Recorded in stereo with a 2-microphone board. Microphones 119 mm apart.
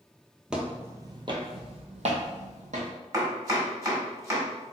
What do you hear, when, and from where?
0.5 s footsteps: 5° right (ahead or behind), 0.7 m; by 2.9 s 75° right (ahead or behind), 1.3 m
3.1 s chopping: 25° right (ahead or behind), 1.3 m